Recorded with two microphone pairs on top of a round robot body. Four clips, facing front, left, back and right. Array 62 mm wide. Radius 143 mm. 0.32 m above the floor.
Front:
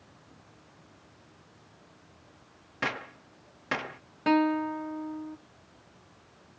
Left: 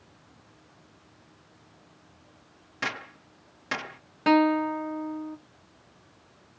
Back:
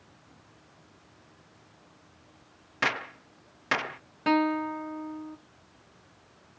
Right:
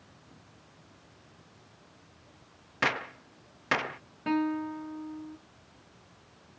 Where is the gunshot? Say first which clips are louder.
Right 4 dB, back 4 dB; 165° right, 0.6 m.